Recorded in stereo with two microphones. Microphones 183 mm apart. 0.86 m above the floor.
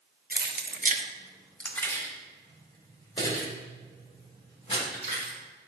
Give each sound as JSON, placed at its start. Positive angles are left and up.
{"t": 0.3, "sound": "keys jangling", "side_deg": -55, "distance_m": 0.9}